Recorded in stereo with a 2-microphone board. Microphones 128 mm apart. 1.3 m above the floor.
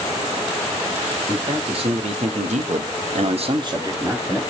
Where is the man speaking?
50° right (ahead or behind), 1.4 m; by 4.4 s 10° right (ahead or behind), 0.9 m.